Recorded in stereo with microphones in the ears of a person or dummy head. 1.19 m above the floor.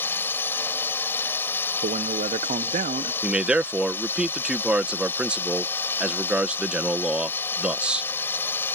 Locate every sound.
0.0 s a drone: 10° left (ahead or behind)
1.8 s a man speaking: 30° right (ahead or behind)
3.2 s a man speaking: 5° right (ahead or behind)